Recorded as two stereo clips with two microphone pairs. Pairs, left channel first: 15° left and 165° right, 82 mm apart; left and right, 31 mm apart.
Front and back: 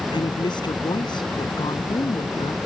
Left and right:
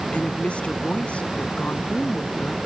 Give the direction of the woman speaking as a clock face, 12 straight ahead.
11 o'clock.